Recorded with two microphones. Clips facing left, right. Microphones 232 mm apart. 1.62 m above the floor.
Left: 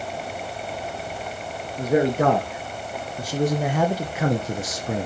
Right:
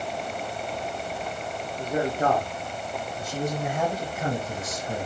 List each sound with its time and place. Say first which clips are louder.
1.8 s a man speaking: left 7 dB; 85° left, 3 m